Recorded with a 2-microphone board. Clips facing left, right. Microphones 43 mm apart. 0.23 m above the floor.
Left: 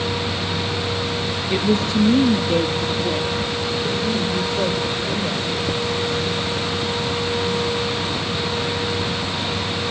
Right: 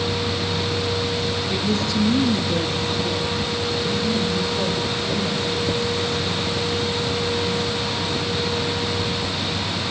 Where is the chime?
No chime in this recording.